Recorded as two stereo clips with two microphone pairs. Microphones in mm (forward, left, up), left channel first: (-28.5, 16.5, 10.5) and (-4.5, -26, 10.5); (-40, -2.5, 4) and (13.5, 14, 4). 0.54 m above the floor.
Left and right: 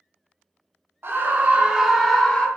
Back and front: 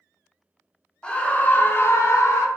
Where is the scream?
90° right, 1.0 m; by 2.5 s straight behind, 1.0 m.